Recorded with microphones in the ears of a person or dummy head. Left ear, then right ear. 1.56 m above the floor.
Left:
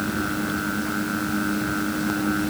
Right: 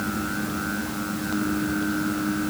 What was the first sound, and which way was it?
Only background noise.